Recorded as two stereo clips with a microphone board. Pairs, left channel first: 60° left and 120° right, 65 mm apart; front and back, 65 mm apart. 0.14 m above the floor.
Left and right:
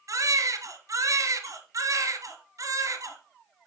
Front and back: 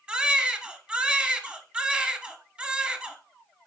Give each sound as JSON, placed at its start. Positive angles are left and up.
{"t": 0.1, "sound": "a baby crying", "azimuth_deg": -110, "distance_m": 1.0}